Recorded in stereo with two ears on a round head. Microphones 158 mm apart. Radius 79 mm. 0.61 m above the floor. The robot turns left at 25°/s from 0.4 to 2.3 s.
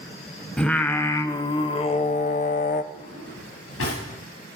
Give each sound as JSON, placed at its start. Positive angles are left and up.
{"t": 0.6, "sound": "singing", "azimuth_deg": 175, "distance_m": 0.7}
{"t": 2.9, "sound": "a drawer", "side_deg": 85, "distance_m": 7.5}